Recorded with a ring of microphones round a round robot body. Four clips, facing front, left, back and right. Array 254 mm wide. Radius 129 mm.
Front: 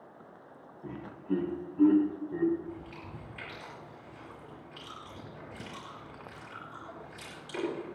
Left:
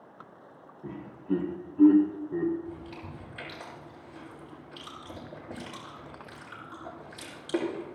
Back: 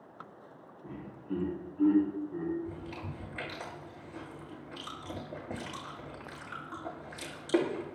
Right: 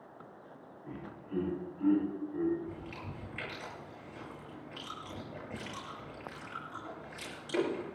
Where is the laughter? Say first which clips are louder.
Left 12 dB, front 5 dB; 60° left, 7.5 m; by 2.5 s 70° left, 8 m.